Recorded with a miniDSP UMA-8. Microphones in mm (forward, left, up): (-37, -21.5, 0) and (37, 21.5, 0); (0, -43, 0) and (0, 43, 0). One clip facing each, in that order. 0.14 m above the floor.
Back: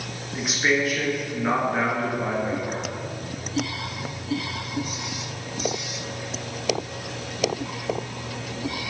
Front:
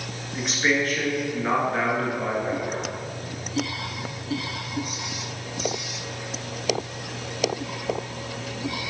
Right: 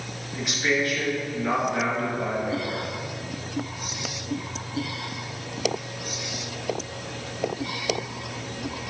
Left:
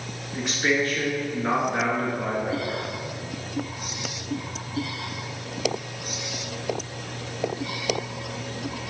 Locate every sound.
0.3 s a man speaking: 125° left, 2.0 m